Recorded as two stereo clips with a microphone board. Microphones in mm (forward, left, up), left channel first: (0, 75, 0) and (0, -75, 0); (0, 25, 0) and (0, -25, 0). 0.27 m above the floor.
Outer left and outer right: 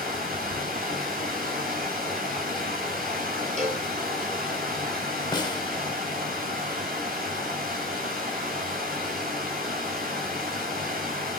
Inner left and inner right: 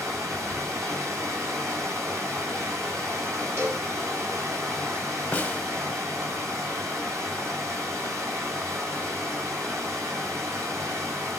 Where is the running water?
80° right, 4.5 m.